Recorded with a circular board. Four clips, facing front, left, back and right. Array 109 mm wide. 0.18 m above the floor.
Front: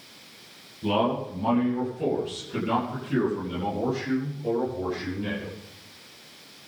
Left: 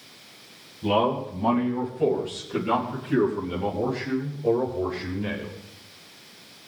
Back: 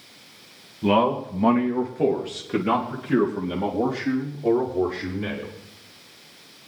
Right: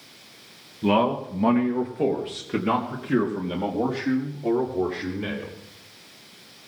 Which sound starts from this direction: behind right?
A man speaking, at 0.8 s.